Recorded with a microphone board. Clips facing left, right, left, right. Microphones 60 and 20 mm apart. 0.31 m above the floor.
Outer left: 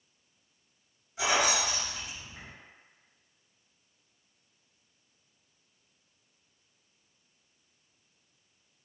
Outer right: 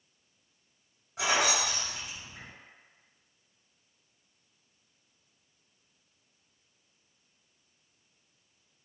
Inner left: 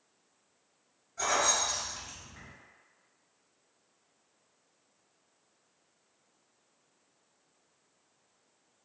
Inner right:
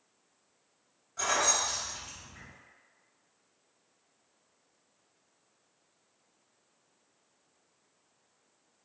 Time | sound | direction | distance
1.2 | keys jangling | 65° right (ahead or behind) | 1.8 m